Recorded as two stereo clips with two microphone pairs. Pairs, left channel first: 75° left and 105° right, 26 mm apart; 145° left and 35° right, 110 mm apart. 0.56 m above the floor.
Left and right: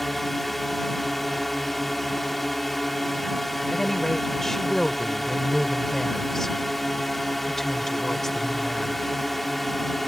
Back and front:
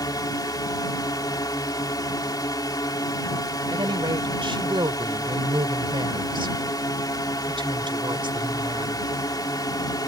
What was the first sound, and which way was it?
A drone, 155° left.